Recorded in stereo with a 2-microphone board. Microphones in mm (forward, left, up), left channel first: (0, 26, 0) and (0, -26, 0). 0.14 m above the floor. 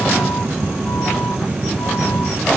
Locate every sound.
Only background noise.